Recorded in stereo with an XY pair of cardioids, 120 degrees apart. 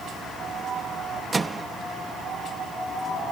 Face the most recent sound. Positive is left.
turn(degrees=-25)